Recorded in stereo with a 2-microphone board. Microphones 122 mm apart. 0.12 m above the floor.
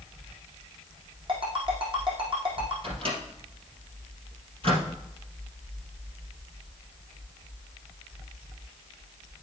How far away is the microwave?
About 3 m.